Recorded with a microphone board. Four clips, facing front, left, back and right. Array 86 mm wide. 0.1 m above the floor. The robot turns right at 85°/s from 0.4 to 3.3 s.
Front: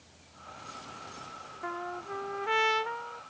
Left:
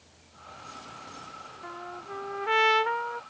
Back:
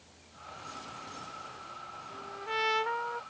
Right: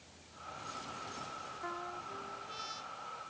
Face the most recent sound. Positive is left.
turn(degrees=135)